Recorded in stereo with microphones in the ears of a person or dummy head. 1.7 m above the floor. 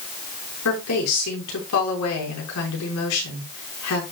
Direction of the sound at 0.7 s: 85° left.